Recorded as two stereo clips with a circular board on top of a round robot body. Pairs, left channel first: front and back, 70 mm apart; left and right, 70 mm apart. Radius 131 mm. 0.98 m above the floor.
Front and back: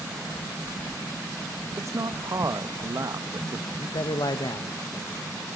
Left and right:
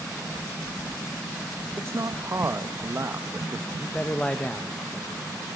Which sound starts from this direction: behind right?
A man speaking, at 1.8 s.